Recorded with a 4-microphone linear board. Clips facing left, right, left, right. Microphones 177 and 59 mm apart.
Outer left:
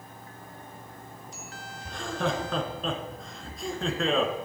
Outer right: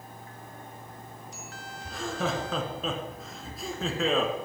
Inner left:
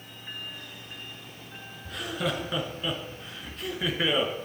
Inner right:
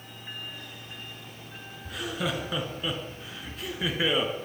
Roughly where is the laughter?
Centre.